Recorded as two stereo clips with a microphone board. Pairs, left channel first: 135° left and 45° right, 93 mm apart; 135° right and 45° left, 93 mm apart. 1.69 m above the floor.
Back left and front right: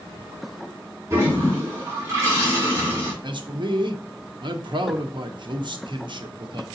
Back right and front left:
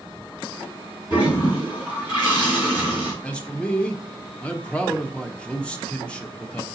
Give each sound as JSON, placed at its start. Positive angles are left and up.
{"t": 1.1, "sound": "a toilet flushing", "azimuth_deg": -100, "distance_m": 3.0}
{"t": 3.2, "sound": "a man speaking", "azimuth_deg": -60, "distance_m": 0.7}